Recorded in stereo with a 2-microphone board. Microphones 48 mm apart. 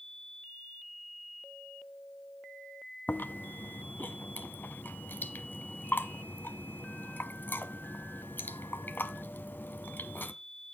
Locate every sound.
3.1 s chewing: 45° left (ahead or behind), 1.4 m